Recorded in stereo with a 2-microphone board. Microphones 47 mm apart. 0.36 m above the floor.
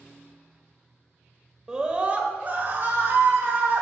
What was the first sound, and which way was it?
A scream, 15° right (ahead or behind).